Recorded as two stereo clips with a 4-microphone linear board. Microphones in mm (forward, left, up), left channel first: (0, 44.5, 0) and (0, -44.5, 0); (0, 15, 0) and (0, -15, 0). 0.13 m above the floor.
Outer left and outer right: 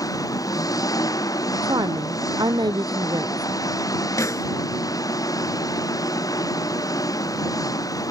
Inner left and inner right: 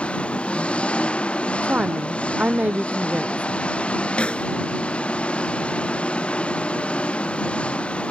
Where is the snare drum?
40° left (ahead or behind).